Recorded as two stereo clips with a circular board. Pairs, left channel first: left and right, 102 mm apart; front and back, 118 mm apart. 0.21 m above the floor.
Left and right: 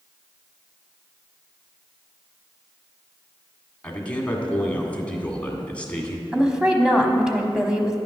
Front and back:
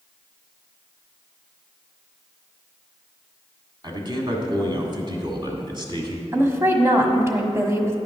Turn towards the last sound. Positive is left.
turn(degrees=-160)